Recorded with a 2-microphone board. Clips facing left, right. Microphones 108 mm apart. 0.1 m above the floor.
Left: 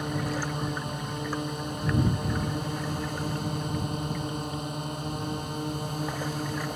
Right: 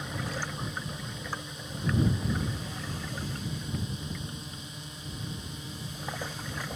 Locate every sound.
0.0 s a drone: 55° left (ahead or behind)